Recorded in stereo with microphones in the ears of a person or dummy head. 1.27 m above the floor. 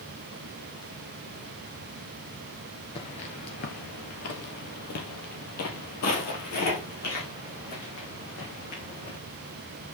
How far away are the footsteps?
About 1.3 m.